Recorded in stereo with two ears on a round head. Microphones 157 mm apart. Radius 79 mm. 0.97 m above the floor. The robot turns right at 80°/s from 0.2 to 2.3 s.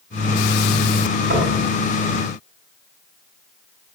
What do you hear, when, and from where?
1.3 s knocking: 60° right (ahead or behind), 4.5 m; by 1.6 s 40° right (ahead or behind), 4.5 m